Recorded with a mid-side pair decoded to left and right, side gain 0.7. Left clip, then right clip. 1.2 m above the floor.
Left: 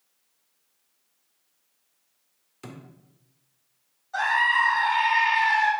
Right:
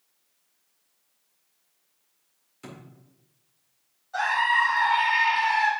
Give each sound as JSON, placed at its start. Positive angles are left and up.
{"t": 2.6, "sound": "a thud", "azimuth_deg": 20, "distance_m": 1.8}
{"t": 4.1, "sound": "a scream", "azimuth_deg": 15, "distance_m": 3.0}